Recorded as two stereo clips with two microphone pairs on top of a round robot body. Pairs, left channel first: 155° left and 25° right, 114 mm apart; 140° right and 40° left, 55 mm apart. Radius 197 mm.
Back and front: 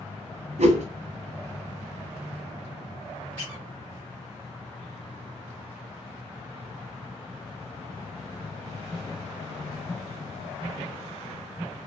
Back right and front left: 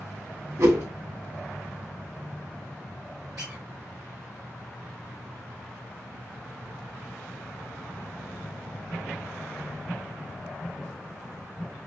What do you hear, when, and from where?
0.6 s a whoosh: straight ahead, 0.6 m
3.4 s a squeak: 55° left, 0.6 m